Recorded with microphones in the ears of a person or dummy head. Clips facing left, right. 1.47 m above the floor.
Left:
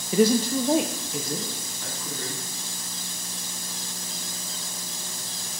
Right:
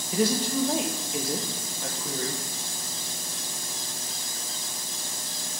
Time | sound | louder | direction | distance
0.1 | a woman speaking | left 5 dB | 60° left (ahead or behind) | 0.6 m